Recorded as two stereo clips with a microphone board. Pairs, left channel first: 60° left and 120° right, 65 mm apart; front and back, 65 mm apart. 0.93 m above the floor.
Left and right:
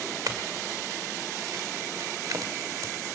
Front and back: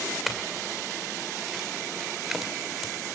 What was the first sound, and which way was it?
A clink, 95° right.